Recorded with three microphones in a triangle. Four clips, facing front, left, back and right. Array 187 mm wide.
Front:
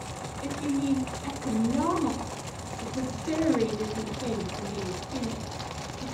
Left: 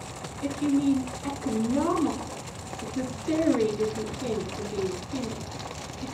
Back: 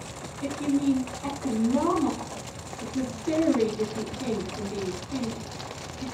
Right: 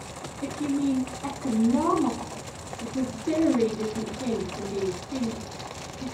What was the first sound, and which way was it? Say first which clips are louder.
A woman speaking: left 2 dB, back 4 dB; 120° right.